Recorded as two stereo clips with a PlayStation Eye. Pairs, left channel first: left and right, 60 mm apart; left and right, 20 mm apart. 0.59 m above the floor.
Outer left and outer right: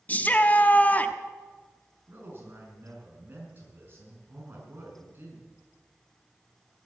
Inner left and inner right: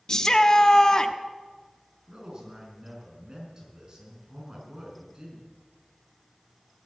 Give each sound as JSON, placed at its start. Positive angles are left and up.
{"t": 0.1, "sound": "a shout", "side_deg": 25, "distance_m": 1.0}
{"t": 2.1, "sound": "a man speaking", "side_deg": -35, "distance_m": 5.5}